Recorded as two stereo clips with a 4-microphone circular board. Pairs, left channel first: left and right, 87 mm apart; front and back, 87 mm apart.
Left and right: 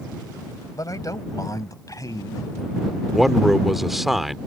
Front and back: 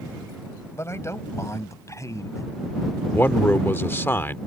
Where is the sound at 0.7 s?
55° left; by 2.5 s 50° left.